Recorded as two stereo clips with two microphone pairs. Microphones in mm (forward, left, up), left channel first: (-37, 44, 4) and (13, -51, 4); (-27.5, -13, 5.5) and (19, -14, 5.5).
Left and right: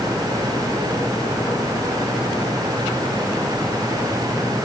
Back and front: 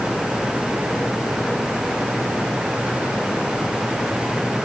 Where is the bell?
No bell in this recording.